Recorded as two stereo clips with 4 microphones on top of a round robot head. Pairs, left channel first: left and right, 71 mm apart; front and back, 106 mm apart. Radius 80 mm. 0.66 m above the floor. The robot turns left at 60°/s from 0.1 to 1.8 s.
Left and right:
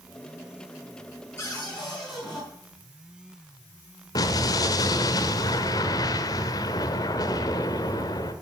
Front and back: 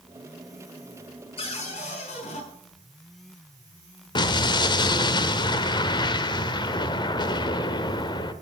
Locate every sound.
1.4 s a cupboard door: 25° left, 5 m; by 2.4 s straight ahead, 5 m
4.2 s an explosion: 45° left, 1.1 m